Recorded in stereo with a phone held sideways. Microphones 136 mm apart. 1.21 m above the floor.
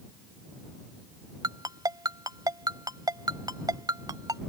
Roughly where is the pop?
I don't hear a pop.